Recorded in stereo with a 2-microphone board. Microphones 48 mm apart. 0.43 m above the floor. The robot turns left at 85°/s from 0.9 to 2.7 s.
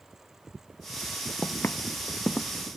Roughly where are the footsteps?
Left.